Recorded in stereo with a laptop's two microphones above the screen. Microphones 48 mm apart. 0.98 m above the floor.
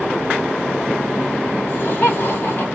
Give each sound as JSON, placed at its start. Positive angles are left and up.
{"t": 1.7, "sound": "laughter", "side_deg": 50, "distance_m": 1.6}